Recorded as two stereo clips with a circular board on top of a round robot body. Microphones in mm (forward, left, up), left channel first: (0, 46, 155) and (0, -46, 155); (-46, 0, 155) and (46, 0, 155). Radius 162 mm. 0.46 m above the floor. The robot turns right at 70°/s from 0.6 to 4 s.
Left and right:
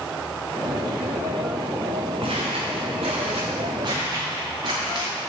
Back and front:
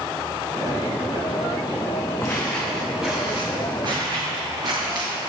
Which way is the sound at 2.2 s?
115° right.